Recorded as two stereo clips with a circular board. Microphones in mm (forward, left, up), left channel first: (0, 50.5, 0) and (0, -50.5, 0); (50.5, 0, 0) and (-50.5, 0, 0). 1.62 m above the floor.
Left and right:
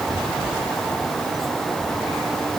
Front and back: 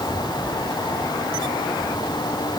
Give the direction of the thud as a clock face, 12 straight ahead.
No thud in this recording.